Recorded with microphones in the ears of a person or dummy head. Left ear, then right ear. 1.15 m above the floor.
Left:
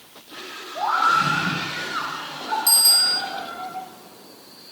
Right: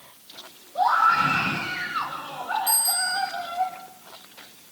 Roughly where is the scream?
Centre.